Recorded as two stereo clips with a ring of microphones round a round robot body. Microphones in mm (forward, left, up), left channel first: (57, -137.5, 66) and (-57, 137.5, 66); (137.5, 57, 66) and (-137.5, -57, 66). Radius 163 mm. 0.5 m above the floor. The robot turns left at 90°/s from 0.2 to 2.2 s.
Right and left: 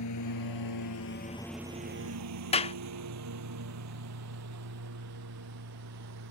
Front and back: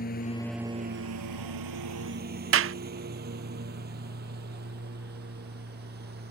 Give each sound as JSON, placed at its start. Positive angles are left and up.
{"t": 0.0, "sound": "a lawn mower", "azimuth_deg": -35}
{"t": 2.5, "sound": "a clap", "azimuth_deg": -130}